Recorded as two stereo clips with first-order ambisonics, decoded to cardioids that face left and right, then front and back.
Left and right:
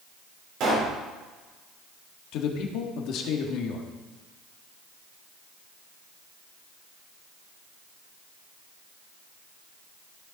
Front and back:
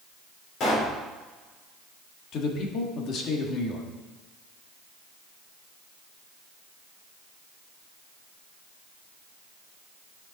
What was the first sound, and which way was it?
A pop, 50° right.